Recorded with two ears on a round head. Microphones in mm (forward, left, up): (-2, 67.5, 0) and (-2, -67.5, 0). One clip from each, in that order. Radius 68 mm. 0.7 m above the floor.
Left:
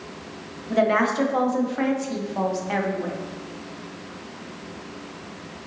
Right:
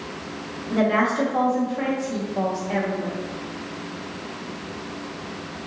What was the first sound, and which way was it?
A woman speaking, 35° left (ahead or behind).